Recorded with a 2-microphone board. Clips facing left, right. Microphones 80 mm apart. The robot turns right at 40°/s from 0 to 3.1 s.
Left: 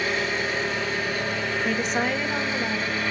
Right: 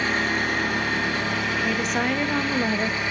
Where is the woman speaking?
170° left, 1.2 m; by 3.0 s 135° right, 1.2 m.